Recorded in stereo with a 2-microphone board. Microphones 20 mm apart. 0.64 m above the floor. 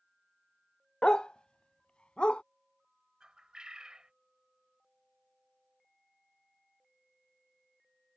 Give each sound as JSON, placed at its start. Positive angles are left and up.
{"t": 1.0, "sound": "a dog barking", "side_deg": 55}
{"t": 3.2, "sound": "a bird", "side_deg": -45}